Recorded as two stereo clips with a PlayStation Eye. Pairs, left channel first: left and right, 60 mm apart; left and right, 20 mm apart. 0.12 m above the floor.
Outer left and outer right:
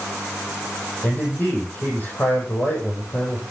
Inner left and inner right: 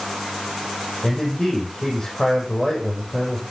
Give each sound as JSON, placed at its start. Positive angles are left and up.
{"t": 1.0, "sound": "a man speaking", "side_deg": 30, "distance_m": 5.5}